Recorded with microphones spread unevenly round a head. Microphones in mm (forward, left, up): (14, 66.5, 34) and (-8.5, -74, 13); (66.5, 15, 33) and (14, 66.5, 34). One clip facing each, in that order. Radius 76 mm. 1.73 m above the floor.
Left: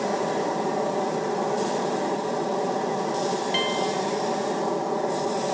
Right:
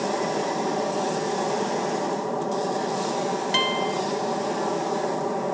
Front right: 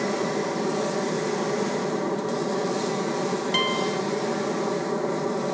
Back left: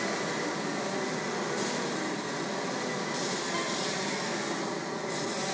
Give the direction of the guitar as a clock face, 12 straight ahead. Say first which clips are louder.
Even, front right 8 dB; 2 o'clock.